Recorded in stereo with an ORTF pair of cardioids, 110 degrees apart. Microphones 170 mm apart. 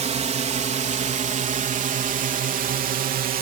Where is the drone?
40° right; by 3.4 s 60° right.